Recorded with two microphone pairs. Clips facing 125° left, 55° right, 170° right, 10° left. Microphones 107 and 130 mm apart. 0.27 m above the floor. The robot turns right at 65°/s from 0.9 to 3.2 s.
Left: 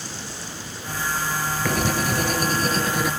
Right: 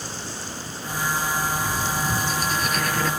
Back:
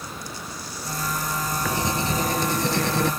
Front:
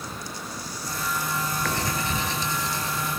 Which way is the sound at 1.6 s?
110° left.